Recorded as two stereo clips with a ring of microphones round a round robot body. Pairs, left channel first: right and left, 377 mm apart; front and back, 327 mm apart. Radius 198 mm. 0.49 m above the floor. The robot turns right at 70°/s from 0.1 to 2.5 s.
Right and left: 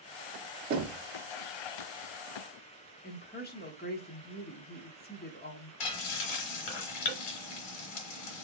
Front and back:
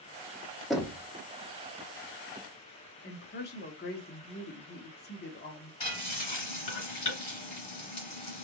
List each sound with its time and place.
0.7 s knocking: 90° left, 1.0 m; by 1.0 s 115° left, 1.0 m
3.0 s a woman speaking: 40° right, 0.9 m
5.8 s frying: 80° right, 1.3 m